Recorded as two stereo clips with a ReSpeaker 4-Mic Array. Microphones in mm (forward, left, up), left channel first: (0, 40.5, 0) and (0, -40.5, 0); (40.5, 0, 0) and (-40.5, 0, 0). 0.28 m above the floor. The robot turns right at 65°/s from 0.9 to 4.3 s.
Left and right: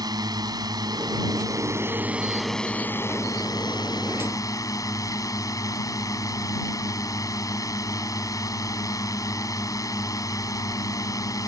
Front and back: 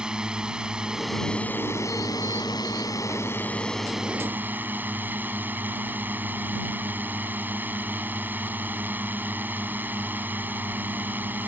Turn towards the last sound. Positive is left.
turn(degrees=120)